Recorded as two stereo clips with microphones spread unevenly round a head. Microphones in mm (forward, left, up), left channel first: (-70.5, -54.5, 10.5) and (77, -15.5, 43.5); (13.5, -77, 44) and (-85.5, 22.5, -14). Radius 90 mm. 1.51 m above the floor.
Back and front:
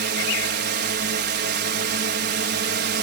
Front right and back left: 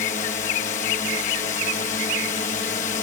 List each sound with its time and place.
0.0 s a drone: 10° left